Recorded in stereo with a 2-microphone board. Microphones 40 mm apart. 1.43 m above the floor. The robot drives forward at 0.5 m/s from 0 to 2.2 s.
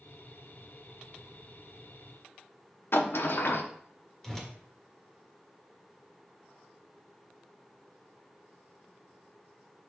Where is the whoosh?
10° left (ahead or behind), 1.6 m.